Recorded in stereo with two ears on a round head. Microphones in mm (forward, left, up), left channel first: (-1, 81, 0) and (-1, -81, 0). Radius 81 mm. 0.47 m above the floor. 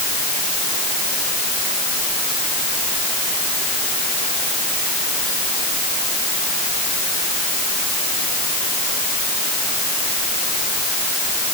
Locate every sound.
Only background noise.